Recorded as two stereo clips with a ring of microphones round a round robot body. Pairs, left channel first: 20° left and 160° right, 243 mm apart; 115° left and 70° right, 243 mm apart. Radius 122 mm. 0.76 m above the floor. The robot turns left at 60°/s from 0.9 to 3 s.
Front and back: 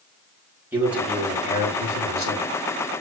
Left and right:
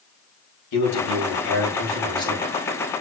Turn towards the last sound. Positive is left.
turn(degrees=-5)